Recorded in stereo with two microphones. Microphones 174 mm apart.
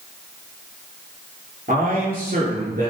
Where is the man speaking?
55° right (ahead or behind), 6.5 m.